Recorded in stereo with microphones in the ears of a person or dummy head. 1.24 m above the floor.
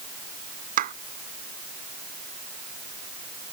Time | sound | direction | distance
0.8 | a clap | 50° right (ahead or behind) | ?